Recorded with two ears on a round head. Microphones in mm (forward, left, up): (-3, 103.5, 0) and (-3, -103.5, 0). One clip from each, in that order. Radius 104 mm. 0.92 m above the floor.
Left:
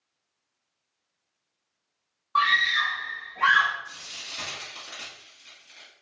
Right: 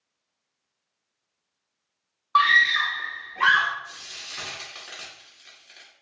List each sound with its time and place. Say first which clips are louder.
2.4 s a scream: right 4 dB; 50° right (ahead or behind), 0.7 m
3.8 s frying: even; 35° right (ahead or behind), 1.8 m